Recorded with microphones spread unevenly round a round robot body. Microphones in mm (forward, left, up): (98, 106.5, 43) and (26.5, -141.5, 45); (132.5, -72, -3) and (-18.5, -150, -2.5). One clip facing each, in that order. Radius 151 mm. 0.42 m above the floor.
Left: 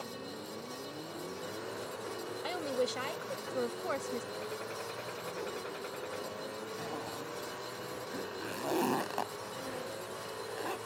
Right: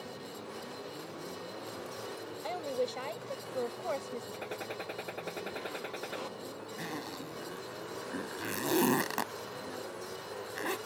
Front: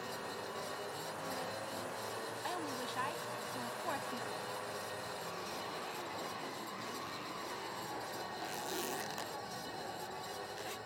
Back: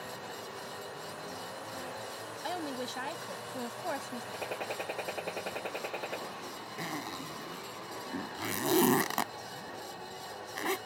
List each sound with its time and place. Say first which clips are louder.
2.4 s a woman speaking: even, back 7 dB; 145° left
4.3 s a gunshot: even, back 6 dB; 150° right
6.8 s a zipper: even, back 6 dB; 170° right